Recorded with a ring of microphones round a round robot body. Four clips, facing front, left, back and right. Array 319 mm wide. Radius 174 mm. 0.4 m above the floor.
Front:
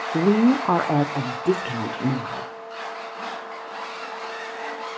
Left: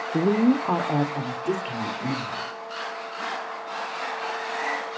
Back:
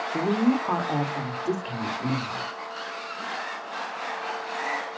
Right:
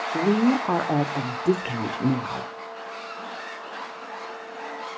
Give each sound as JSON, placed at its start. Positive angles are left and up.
{"t": 0.1, "sound": "a woman speaking", "azimuth_deg": 30, "distance_m": 1.0}